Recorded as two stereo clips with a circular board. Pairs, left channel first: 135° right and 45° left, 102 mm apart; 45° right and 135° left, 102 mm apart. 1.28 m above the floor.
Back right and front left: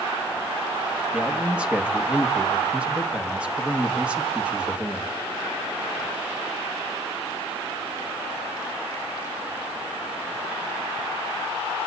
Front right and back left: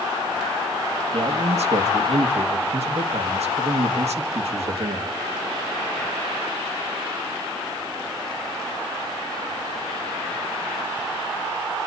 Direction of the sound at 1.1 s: 125° left.